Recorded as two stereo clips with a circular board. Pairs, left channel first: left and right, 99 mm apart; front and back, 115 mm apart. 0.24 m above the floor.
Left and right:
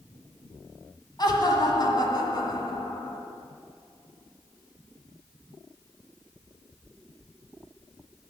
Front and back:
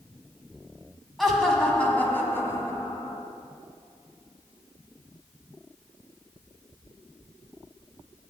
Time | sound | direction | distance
1.2 | laughter | 90° left | 1.8 m